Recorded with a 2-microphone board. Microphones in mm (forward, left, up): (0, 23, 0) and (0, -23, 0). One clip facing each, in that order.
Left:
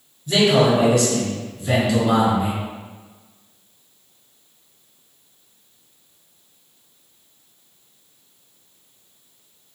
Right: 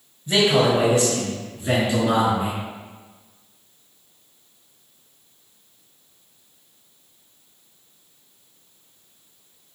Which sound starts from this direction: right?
A man speaking, at 0.3 s.